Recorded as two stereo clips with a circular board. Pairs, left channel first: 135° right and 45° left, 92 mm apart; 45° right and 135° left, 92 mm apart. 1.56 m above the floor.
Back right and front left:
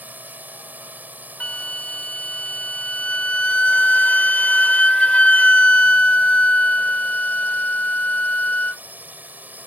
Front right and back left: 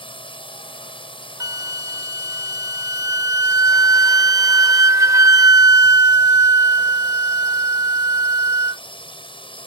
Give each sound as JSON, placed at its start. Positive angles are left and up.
{"t": 0.0, "sound": "a drone", "azimuth_deg": -25}
{"t": 1.4, "sound": "a flute", "azimuth_deg": 155}